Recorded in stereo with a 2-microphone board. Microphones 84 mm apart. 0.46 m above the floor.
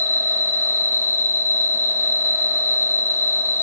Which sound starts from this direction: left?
An insect, at 0.0 s.